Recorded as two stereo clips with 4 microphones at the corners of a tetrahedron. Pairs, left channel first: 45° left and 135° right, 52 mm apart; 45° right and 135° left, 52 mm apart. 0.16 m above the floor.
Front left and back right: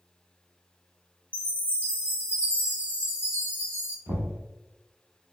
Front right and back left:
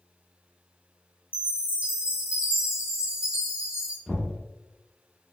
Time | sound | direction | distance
1.3 | a chime | 170° right | 1.2 m
4.1 | knocking | 130° right | 1.1 m